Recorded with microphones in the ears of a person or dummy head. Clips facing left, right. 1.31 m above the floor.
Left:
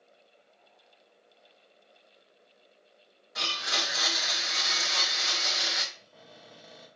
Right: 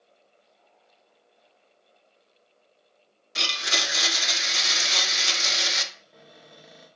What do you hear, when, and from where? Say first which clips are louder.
3.4 s a blender: right 3 dB; 45° right (ahead or behind), 0.8 m
5.9 s a cupboard door: right 1 dB; 20° right (ahead or behind), 1.4 m